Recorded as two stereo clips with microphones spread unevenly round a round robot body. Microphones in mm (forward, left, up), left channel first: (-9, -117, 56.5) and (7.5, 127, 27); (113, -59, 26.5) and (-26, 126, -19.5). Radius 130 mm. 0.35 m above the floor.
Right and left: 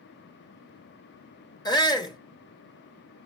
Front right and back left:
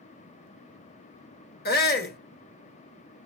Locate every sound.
1.6 s a shout: 20° right, 1.1 m